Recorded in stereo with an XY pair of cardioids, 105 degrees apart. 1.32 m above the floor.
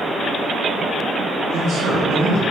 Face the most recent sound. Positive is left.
turn(degrees=-65)